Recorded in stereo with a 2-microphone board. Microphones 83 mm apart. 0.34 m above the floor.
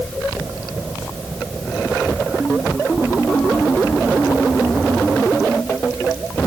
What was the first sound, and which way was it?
Only background noise.